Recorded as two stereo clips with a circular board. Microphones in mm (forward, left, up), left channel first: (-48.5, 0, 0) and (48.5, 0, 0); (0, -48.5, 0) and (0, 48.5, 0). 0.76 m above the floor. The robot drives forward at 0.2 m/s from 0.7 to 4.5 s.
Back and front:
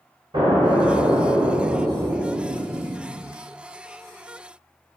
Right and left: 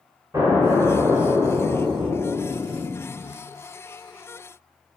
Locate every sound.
0.3 s an explosion: 30° left, 0.8 m; by 3.4 s 70° left, 0.5 m